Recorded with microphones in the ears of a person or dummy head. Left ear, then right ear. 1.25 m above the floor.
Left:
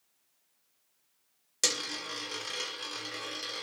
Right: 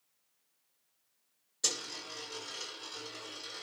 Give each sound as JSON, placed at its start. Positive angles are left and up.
{"t": 1.6, "sound": "a dropped coin", "side_deg": 50, "distance_m": 1.1}